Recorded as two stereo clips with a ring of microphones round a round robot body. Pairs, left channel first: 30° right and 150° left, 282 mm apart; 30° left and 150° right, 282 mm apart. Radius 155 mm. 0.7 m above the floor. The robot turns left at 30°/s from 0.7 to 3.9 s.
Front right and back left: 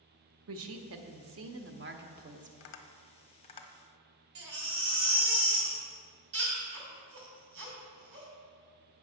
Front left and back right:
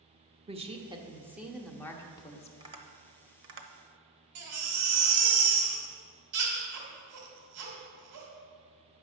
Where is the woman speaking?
145° left, 1.0 m; by 2.5 s 90° left, 1.0 m.